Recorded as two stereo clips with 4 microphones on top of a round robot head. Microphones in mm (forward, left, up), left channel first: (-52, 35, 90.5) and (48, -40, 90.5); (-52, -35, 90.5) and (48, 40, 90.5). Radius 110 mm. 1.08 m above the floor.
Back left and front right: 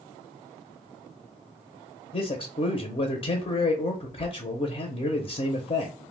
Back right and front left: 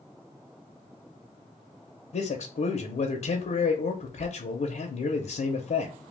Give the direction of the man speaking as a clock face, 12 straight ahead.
6 o'clock.